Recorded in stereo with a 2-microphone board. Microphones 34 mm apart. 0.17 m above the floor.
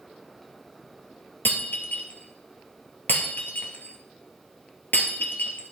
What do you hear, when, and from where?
1.4 s breaking glass: 75° left (ahead or behind), 1.5 m